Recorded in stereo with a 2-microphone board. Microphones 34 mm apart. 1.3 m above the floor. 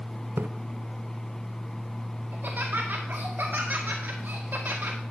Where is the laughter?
70° right (ahead or behind), 1.8 m.